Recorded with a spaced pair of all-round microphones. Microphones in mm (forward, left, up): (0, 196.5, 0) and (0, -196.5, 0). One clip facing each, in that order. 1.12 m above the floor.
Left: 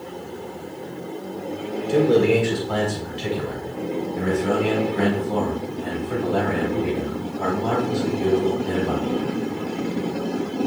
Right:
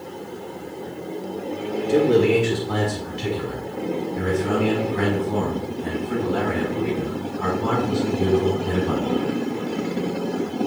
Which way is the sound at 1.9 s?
35° right (ahead or behind).